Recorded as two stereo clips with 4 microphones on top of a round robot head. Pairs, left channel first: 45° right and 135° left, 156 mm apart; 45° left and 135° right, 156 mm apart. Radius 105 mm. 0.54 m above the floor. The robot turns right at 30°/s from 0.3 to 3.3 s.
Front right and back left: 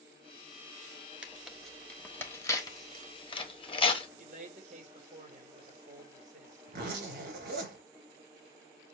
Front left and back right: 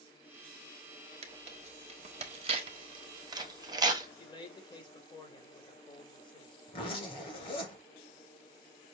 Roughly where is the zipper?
Left.